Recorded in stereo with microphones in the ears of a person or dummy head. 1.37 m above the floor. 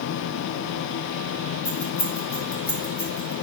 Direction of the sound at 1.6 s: 30° left (ahead or behind).